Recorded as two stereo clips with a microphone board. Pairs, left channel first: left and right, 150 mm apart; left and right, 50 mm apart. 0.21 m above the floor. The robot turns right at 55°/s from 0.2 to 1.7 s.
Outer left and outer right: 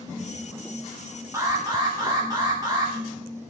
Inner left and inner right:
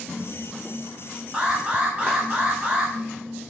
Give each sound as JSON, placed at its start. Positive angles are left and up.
{"t": 1.3, "sound": "an alarm", "side_deg": -20, "distance_m": 1.2}